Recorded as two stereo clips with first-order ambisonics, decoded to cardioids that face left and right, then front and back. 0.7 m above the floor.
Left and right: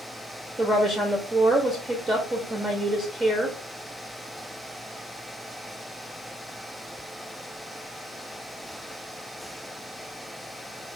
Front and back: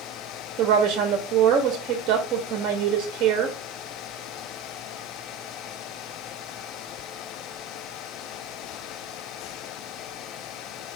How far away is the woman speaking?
About 0.8 m.